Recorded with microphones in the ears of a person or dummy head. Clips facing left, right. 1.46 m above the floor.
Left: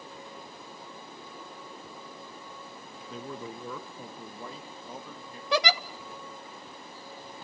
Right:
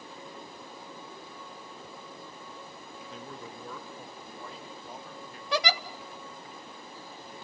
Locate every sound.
3.1 s a man speaking: 70° left (ahead or behind), 0.9 m; by 5.4 s 80° left, 2.5 m
5.5 s a giggle: 70° left (ahead or behind), 0.9 m